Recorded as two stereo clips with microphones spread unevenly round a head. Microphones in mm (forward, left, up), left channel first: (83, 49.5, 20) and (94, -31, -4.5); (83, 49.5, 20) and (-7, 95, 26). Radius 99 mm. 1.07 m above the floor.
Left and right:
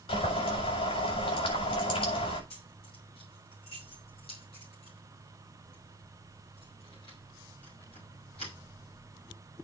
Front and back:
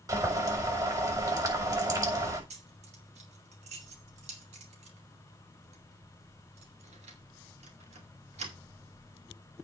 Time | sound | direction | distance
0.1 | boiling | 100° left | 6.5 m
2.5 | keys jangling | 155° left | 2.5 m